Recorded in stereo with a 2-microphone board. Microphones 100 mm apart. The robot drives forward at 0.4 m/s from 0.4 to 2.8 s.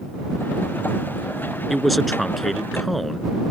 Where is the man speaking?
Centre (ahead or behind).